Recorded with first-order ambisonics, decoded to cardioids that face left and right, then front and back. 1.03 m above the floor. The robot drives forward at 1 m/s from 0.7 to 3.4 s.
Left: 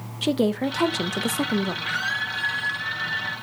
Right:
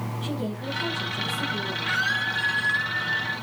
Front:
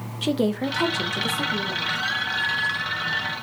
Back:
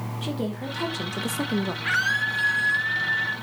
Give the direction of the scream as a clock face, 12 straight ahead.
6 o'clock.